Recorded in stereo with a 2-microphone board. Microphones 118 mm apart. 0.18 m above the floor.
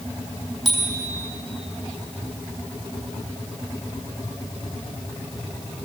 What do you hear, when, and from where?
0.7 s a bicycle bell: centre (ahead or behind), 5 m